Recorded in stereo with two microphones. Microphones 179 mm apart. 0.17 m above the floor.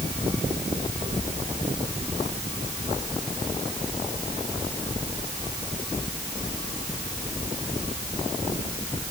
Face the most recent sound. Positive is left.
No sound to turn to.